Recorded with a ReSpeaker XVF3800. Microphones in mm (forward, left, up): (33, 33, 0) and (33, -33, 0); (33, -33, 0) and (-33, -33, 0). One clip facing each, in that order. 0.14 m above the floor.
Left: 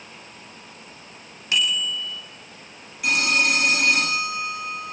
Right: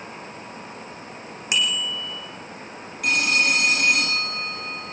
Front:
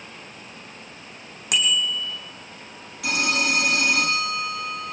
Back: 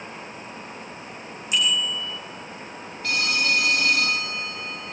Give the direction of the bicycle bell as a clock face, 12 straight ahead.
1 o'clock.